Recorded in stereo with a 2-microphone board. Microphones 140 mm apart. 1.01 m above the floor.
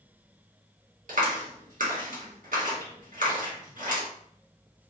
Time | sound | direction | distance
1.1 | a clap | 70° right (ahead or behind) | 1.3 m